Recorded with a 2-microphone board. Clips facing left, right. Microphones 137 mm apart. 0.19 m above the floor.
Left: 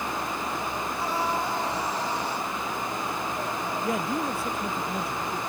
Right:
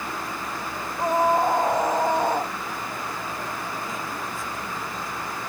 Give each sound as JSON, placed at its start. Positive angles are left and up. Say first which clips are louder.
{"t": 1.0, "sound": "a scream", "louder": "right 9 dB", "side_deg": -50}
{"t": 3.8, "sound": "a man speaking", "louder": "left 5 dB", "side_deg": 70}